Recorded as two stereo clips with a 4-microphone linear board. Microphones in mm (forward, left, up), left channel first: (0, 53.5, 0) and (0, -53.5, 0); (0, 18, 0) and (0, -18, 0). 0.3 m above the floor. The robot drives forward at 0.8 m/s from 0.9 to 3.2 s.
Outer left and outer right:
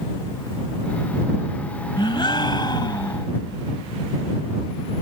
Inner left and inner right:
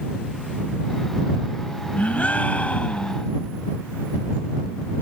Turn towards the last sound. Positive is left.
turn(degrees=40)  # may be behind; listen again after turning